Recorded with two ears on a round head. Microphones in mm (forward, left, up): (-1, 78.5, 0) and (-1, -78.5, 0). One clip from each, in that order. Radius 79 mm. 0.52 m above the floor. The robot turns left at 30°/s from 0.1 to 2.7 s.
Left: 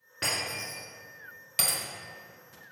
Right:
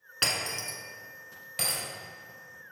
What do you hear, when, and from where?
0.2 s breaking glass: 80° right, 1.5 m; by 0.8 s 65° right (ahead or behind), 1.5 m
1.6 s breaking glass: 25° left (ahead or behind), 1.5 m; by 1.8 s 20° left (ahead or behind), 1.5 m